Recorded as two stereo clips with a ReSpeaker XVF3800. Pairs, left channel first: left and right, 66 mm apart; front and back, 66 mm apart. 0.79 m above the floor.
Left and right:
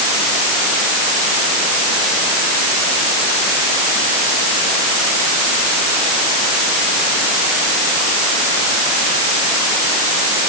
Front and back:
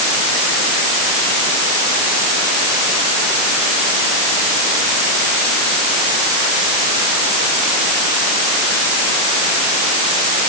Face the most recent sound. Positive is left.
No sound to turn to.